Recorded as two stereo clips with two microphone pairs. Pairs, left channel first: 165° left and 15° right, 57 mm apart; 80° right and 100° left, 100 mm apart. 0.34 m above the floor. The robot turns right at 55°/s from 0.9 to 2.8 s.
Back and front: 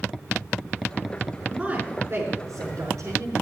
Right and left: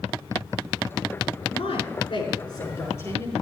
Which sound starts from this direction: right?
A woman speaking, at 1.5 s.